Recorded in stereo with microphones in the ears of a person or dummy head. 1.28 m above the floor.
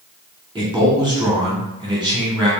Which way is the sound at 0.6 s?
5° right (ahead or behind).